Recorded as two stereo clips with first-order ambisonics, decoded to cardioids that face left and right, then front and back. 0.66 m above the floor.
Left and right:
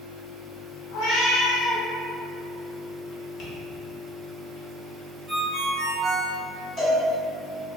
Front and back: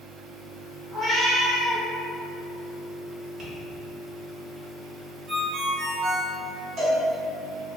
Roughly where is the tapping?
Behind left.